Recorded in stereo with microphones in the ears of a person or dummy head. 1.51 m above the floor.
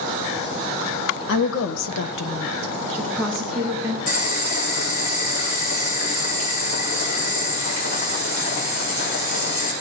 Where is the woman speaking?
70° left (ahead or behind), 1.7 m; by 4.0 s 15° right (ahead or behind), 2.5 m.